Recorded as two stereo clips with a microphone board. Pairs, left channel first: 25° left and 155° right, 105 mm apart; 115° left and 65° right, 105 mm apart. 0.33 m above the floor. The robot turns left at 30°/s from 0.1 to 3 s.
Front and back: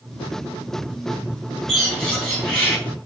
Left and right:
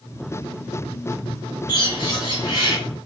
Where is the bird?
115° left, 2.0 m; by 2.8 s 85° left, 2.0 m.